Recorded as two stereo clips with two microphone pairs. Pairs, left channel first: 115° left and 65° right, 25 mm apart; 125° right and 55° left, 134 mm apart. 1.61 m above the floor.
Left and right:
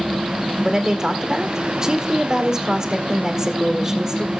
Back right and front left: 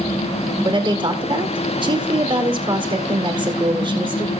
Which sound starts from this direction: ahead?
A woman speaking, at 0.7 s.